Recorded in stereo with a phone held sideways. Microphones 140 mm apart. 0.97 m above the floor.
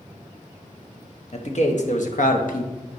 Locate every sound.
1.3 s a man speaking: 55° left (ahead or behind), 1.3 m; by 2.7 s 70° left (ahead or behind), 0.8 m